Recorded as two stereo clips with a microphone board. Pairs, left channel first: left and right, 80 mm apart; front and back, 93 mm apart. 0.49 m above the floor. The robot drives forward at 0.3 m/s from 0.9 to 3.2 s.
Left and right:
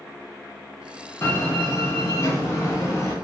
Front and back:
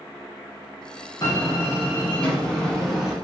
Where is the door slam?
40° left, 0.9 m; by 3.1 s 100° left, 0.8 m.